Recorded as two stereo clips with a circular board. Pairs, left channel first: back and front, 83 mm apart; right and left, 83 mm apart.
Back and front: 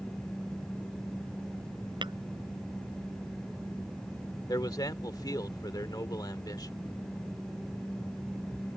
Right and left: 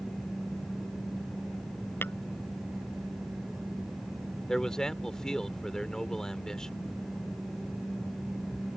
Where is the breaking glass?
No breaking glass in this recording.